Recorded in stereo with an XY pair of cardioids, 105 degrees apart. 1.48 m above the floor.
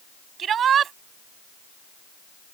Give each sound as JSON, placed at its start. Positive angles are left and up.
{"t": 0.4, "sound": "a shout", "azimuth_deg": -55}